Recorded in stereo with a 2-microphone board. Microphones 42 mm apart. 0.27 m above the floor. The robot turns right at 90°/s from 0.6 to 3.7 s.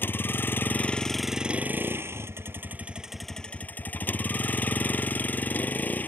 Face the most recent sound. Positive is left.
turn(degrees=45)